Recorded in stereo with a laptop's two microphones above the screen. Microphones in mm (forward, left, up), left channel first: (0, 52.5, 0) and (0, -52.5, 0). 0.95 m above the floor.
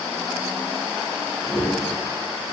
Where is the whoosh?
5° right (ahead or behind), 1.4 m.